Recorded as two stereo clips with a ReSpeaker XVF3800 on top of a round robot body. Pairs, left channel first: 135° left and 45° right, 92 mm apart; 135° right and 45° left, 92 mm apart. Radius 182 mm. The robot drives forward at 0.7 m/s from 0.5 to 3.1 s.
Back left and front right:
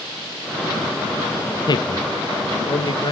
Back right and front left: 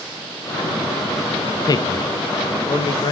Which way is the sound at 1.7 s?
Straight behind.